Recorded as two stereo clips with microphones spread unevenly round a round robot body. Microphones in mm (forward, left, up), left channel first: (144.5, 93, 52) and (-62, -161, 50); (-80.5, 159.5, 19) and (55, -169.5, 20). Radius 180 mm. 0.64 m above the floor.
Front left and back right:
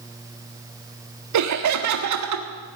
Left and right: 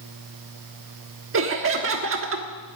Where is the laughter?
115° right, 1.3 m.